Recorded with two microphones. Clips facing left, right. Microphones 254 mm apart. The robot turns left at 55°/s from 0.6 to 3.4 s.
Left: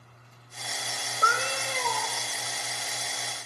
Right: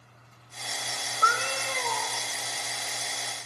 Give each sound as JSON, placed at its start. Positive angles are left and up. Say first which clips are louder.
{"t": 1.2, "sound": "a cat meowing", "louder": "left 1 dB", "azimuth_deg": 35, "distance_m": 0.9}